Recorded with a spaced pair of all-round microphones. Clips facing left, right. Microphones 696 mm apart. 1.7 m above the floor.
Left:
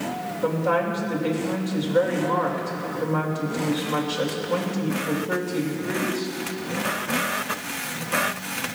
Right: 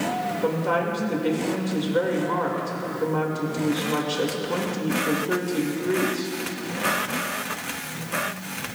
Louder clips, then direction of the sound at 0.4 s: Left 2 dB; 15° left (ahead or behind).